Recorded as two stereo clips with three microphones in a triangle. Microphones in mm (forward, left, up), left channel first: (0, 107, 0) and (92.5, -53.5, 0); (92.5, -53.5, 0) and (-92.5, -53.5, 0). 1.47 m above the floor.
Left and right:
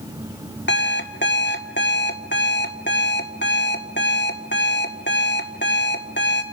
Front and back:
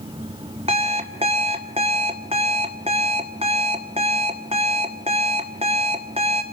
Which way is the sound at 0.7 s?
125° left.